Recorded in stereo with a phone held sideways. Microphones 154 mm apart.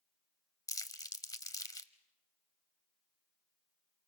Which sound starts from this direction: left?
Crumpling, at 0.7 s.